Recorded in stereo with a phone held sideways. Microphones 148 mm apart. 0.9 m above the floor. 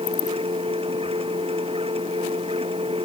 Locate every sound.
0.0 s a machine running: 40° right (ahead or behind)